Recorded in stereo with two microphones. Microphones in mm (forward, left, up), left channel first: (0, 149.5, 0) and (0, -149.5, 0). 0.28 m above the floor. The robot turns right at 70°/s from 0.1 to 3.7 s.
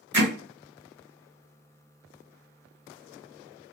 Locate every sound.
0.1 s hammering: 35° right (ahead or behind), 1.5 m